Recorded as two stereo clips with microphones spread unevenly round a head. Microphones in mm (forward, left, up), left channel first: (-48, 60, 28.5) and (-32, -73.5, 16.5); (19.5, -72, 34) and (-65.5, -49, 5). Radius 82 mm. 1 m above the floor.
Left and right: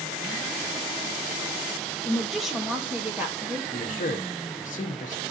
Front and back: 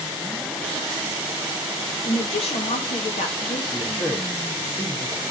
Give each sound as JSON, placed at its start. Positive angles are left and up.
{"t": 2.0, "sound": "a woman speaking", "azimuth_deg": 10, "distance_m": 1.1}
{"t": 3.7, "sound": "a man speaking", "azimuth_deg": 60, "distance_m": 1.6}